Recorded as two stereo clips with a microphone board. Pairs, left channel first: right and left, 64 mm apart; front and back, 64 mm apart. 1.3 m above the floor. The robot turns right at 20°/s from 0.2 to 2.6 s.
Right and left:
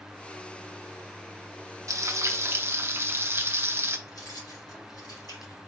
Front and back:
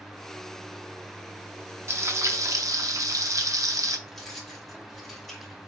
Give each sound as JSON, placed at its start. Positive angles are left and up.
{"t": 1.9, "sound": "frying", "azimuth_deg": 130, "distance_m": 0.6}
{"t": 4.1, "sound": "keys jangling", "azimuth_deg": -90, "distance_m": 2.5}